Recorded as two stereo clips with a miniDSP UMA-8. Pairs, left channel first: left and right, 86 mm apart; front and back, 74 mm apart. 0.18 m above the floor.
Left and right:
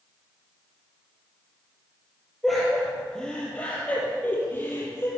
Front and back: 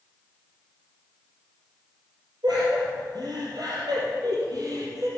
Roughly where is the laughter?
Behind.